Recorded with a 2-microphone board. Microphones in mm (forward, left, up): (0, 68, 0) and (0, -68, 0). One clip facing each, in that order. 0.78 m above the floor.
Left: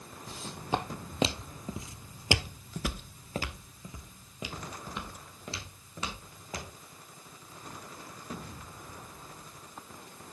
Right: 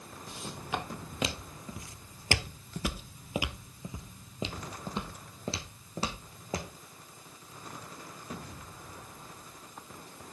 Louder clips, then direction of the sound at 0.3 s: Left 4 dB; 35° left (ahead or behind).